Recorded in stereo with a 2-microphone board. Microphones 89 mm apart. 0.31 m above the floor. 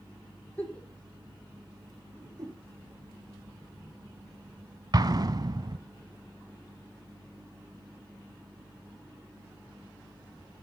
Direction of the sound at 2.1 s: 40° right (ahead or behind).